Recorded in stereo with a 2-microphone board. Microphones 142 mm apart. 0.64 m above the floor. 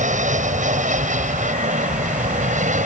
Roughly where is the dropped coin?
No dropped coin in this recording.